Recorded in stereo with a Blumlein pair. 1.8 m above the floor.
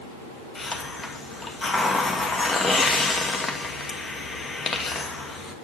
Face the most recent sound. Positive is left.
turn(degrees=15)